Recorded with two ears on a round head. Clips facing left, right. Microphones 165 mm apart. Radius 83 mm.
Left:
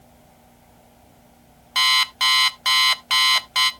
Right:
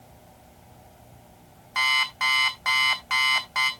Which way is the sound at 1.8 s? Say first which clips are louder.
Left 3 dB; 40° left (ahead or behind).